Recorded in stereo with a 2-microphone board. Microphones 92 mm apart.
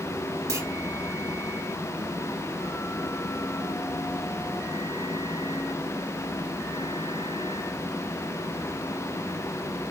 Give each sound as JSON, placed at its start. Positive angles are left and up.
{"t": 0.5, "sound": "a clunk", "side_deg": -35, "distance_m": 1.5}